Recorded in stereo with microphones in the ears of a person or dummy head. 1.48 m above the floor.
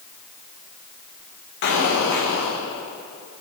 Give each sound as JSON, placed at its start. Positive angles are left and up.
{"t": 1.6, "sound": "an explosion", "side_deg": 60, "distance_m": 1.3}